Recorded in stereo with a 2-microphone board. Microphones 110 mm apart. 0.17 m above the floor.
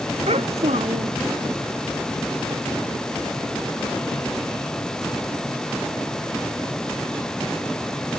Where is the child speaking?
75° right (ahead or behind).